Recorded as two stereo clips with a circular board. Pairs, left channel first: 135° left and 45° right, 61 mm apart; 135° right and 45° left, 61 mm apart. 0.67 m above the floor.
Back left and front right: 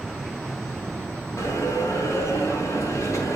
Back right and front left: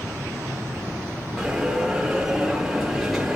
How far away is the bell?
About 4 m.